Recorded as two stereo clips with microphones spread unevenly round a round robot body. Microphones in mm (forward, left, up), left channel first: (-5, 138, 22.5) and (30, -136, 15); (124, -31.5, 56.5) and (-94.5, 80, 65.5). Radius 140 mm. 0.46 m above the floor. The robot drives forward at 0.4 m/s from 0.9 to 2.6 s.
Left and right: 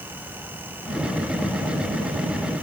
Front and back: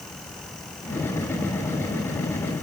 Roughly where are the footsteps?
No footsteps in this recording.